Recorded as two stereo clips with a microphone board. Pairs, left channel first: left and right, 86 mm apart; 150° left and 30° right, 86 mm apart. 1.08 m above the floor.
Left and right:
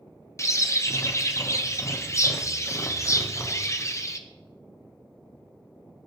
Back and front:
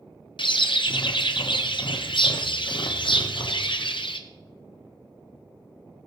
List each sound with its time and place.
0.4 s a bird: 145° left, 0.8 m